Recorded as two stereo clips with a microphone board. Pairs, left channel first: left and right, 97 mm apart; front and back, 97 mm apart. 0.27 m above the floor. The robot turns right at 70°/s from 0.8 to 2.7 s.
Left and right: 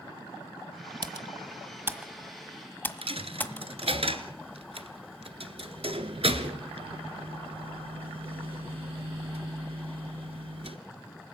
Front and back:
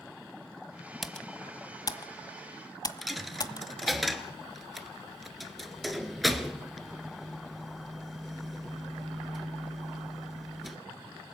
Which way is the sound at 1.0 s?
90° right.